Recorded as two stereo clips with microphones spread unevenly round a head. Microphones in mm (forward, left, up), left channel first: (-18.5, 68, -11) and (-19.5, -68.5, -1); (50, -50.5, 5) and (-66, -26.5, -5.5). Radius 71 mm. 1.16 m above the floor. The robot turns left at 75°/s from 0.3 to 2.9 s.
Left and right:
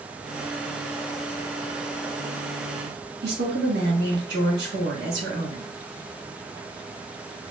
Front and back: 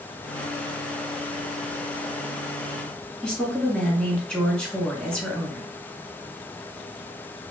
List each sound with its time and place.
3.2 s a woman speaking: 95° right, 1.2 m